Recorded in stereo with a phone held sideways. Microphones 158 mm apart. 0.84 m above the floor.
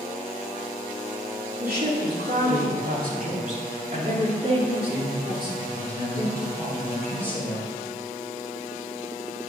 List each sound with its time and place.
1.6 s a woman speaking: 70° right (ahead or behind), 2.5 m; by 7.7 s 10° right (ahead or behind), 4 m